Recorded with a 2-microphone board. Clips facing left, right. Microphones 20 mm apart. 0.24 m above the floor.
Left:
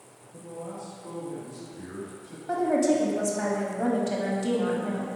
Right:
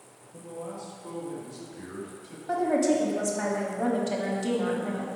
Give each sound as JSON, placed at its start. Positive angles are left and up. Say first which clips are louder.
{"t": 0.3, "sound": "a man speaking", "louder": "even", "side_deg": -10, "distance_m": 1.5}
{"t": 2.5, "sound": "a woman speaking", "louder": "left 1 dB", "side_deg": -5, "distance_m": 1.1}